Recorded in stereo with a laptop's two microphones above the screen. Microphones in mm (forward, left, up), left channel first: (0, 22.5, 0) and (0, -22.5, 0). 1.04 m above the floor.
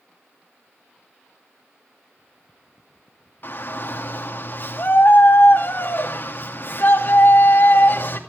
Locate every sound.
3.4 s a shout: 45° left (ahead or behind), 2 m